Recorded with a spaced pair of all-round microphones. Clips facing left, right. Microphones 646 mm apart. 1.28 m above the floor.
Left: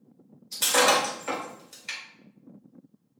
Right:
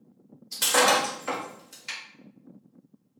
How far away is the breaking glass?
About 1.4 m.